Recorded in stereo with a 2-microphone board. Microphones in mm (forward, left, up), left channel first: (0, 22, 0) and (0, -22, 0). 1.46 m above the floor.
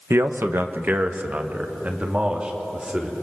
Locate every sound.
0.1 s a man speaking: 75° right (ahead or behind), 1.2 m; by 3.1 s 25° right (ahead or behind), 3.5 m